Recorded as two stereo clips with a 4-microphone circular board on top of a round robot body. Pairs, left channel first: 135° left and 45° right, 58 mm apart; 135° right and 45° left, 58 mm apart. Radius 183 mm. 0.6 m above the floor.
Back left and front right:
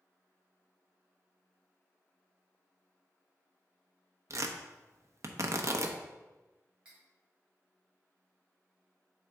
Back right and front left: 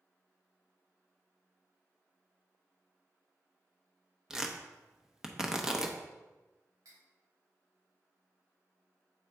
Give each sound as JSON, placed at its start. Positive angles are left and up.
{"t": 4.3, "sound": "tearing paper", "azimuth_deg": -30, "distance_m": 1.1}
{"t": 6.8, "sound": "cutlery clinking", "azimuth_deg": 30, "distance_m": 3.0}